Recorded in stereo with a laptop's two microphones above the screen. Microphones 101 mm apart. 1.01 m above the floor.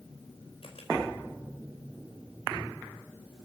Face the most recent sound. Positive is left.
turn(degrees=60)  # may be behind; listen again after turning